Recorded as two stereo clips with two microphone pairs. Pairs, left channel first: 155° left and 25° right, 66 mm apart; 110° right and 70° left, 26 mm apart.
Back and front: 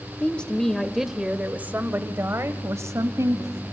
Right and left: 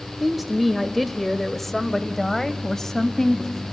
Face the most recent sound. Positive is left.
turn(degrees=-35)